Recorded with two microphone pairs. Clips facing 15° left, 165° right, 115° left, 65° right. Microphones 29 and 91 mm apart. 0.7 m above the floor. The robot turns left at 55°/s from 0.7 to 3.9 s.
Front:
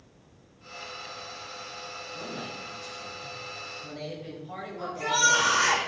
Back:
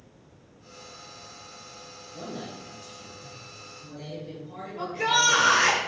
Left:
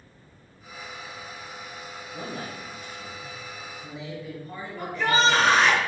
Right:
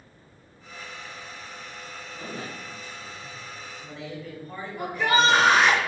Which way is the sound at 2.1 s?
135° left.